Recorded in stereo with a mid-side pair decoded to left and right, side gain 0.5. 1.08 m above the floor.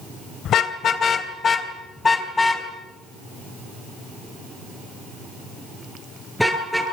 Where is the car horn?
60° left, 2.5 m; by 6.8 s straight ahead, 9.5 m.